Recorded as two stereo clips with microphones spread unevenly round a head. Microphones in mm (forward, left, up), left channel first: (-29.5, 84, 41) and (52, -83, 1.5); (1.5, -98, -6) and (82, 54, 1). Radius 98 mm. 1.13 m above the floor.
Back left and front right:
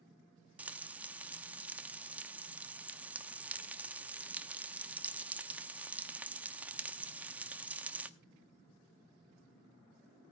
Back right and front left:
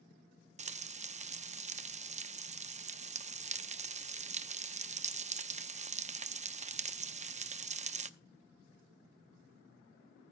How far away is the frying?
About 0.7 m.